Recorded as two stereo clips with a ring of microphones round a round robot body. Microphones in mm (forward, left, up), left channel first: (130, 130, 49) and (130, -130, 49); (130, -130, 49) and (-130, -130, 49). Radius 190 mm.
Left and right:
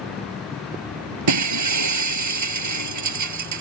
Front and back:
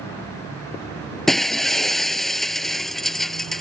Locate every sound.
1.3 s breaking glass: 90° right